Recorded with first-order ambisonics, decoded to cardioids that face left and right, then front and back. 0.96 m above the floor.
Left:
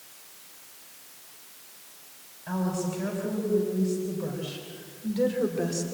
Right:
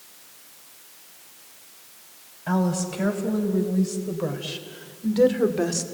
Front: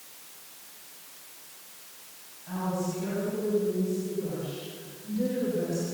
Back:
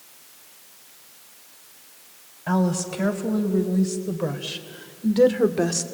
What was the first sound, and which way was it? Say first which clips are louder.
A woman speaking: right 5 dB, back 7 dB; 150° right.